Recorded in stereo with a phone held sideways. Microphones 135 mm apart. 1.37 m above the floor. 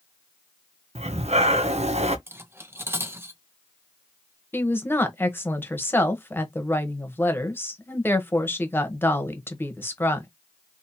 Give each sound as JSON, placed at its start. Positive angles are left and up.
{"t": 0.9, "sound": "breathing", "side_deg": -60, "distance_m": 0.6}
{"t": 2.3, "sound": "cutlery clinking", "side_deg": -20, "distance_m": 0.5}
{"t": 4.5, "sound": "a woman speaking", "side_deg": 15, "distance_m": 1.0}